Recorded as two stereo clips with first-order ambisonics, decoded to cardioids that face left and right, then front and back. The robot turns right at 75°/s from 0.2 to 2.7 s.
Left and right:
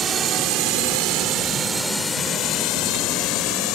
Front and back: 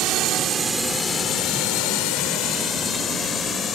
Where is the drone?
145° right; by 3.8 s 65° left.